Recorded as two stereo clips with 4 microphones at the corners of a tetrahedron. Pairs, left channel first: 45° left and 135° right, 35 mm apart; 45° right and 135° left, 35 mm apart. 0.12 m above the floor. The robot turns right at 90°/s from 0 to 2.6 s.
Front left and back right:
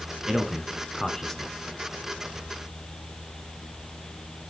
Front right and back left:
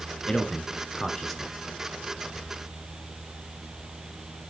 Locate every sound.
0.3 s a man speaking: 75° right, 1.2 m; by 1.5 s 35° left, 1.2 m